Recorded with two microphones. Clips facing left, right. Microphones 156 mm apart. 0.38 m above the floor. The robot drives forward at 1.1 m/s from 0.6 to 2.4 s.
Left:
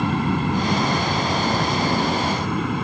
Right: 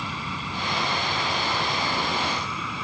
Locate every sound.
0.0 s an aircraft: 60° left (ahead or behind); by 2.9 s 55° left (ahead or behind)